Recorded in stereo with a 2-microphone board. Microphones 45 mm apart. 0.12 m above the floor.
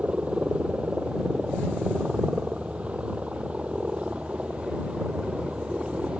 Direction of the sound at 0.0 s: 25° right (ahead or behind).